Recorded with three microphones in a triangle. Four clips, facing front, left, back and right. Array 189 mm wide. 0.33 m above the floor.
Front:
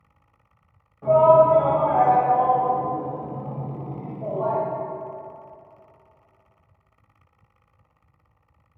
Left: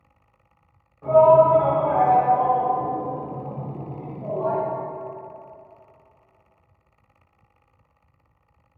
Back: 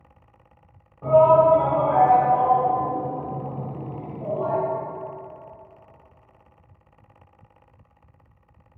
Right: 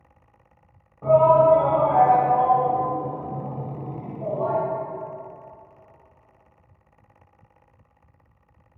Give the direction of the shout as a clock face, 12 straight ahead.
4 o'clock.